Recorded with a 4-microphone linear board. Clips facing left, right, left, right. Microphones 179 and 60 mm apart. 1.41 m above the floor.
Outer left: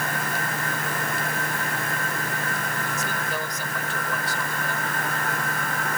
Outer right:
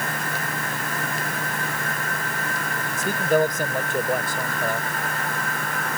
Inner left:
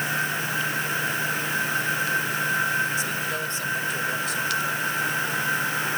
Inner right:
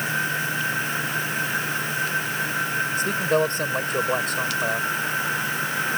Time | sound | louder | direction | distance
3.0 | a man speaking | outer right 10 dB, inner right 6 dB | 55° right (ahead or behind) | ?